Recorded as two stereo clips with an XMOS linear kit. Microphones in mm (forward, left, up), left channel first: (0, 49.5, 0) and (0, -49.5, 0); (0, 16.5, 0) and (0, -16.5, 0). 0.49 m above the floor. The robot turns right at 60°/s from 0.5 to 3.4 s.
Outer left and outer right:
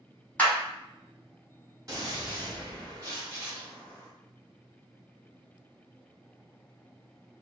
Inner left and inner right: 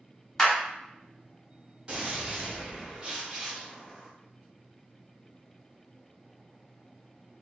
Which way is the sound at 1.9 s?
130° right.